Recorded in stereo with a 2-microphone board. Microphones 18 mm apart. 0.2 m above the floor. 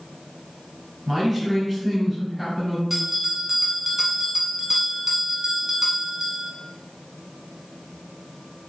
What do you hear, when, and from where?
1.1 s a man speaking: 10° right (ahead or behind), 1.4 m
2.9 s a bell: 20° right (ahead or behind), 0.7 m